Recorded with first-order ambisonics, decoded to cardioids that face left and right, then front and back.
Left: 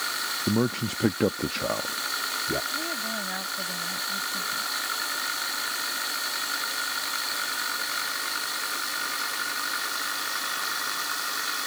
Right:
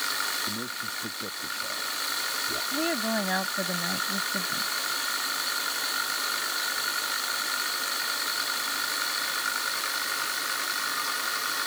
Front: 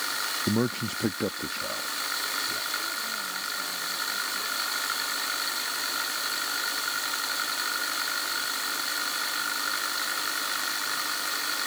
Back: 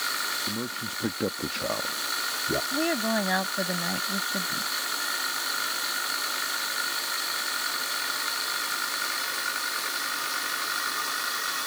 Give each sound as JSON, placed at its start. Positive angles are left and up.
{"t": 0.5, "sound": "a man speaking", "azimuth_deg": 50}
{"t": 2.7, "sound": "a woman speaking", "azimuth_deg": -155}